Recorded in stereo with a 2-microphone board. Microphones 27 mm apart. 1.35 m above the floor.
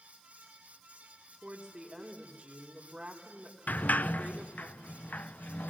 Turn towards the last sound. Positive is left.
turn(degrees=75)  # may be behind; listen again after turning